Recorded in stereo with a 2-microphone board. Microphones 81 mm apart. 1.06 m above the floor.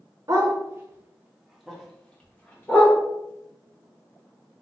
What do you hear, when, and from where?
0.3 s a dog barking: 45° right (ahead or behind), 0.9 m; by 3.0 s 30° left (ahead or behind), 1.2 m